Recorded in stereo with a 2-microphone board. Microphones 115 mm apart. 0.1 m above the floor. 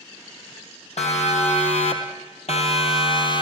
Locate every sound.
1.0 s a siren: 65° left (ahead or behind), 4 m; by 3.4 s 40° left (ahead or behind), 3 m